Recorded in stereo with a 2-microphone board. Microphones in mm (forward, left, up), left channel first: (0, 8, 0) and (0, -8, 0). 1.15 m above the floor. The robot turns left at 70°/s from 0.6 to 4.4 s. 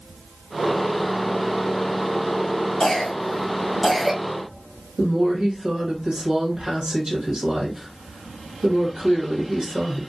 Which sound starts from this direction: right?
A woman speaking, at 5.0 s.